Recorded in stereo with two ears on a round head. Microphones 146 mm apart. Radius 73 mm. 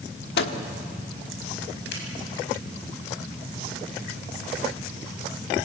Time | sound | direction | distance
0.4 | a microwave | 70° left (ahead or behind) | 1.4 m
1.9 | a finger snap | 75° left (ahead or behind) | 6 m